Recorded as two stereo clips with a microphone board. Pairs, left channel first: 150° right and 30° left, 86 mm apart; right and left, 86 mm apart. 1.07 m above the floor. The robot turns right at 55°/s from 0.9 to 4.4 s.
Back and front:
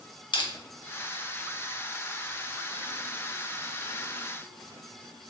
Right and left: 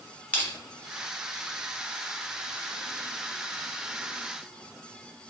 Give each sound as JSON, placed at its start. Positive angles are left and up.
{"t": 0.3, "sound": "crushing", "azimuth_deg": -160, "distance_m": 0.6}